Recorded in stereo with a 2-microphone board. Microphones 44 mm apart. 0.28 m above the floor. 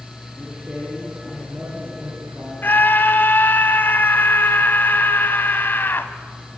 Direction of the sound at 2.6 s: 55° left (ahead or behind).